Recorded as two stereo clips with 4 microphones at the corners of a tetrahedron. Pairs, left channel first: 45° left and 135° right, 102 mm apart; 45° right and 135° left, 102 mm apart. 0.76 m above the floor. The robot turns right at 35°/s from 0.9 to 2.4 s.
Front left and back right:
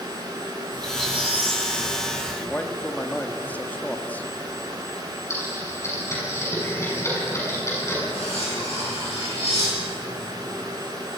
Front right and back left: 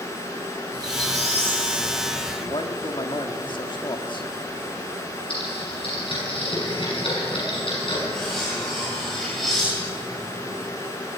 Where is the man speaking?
25° right, 1.6 m.